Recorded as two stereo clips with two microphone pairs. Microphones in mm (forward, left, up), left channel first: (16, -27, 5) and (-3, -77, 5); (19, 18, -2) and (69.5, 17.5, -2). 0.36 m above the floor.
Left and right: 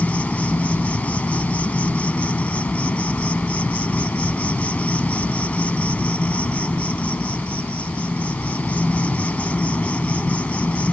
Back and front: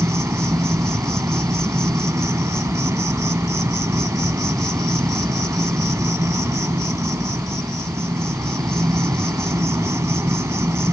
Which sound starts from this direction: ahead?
An insect, at 0.0 s.